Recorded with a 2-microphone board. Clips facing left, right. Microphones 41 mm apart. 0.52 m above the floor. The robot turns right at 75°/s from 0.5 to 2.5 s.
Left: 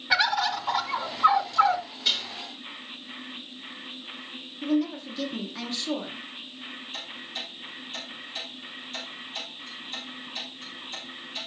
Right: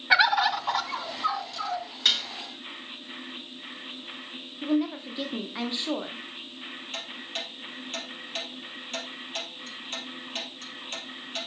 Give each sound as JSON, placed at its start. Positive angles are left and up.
{"t": 0.1, "sound": "a bird", "azimuth_deg": -20, "distance_m": 0.7}
{"t": 2.0, "sound": "dishes clattering", "side_deg": -75, "distance_m": 5.0}
{"t": 4.6, "sound": "a woman speaking", "side_deg": -25, "distance_m": 1.1}
{"t": 6.9, "sound": "ticking", "side_deg": -65, "distance_m": 3.5}